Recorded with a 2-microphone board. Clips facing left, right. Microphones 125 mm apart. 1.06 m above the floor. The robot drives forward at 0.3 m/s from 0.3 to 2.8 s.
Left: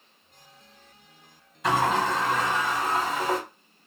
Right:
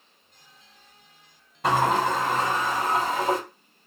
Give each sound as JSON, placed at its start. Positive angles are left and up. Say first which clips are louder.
{"t": 1.6, "sound": "a sliding door", "louder": "right 2 dB", "side_deg": -60, "distance_m": 2.0}